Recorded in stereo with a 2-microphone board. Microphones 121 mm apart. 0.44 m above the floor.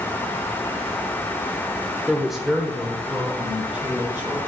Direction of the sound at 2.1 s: Centre (ahead or behind).